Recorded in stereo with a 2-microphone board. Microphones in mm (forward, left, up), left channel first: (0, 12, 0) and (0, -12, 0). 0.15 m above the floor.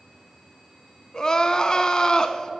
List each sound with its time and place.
1.1 s crying: 30° left (ahead or behind), 0.6 m